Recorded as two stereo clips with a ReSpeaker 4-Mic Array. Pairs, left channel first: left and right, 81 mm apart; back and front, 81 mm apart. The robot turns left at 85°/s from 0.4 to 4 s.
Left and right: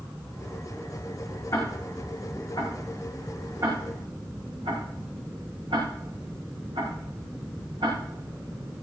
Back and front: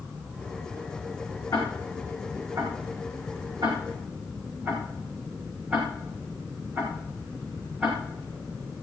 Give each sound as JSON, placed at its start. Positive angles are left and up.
{"t": 1.5, "sound": "ticking", "azimuth_deg": 135, "distance_m": 5.0}